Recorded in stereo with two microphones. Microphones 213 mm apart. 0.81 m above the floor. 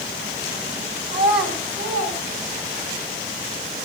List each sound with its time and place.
1.1 s a child speaking: 55° right (ahead or behind), 4.5 m; by 3.0 s 40° right (ahead or behind), 5.5 m